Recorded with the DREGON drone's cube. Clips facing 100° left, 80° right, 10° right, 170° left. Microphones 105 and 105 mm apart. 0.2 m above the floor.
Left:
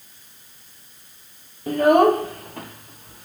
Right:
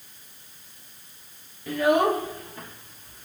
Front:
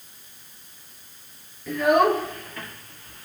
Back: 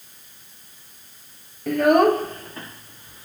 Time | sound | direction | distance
1.7 | a child speaking | 145° left | 2.5 m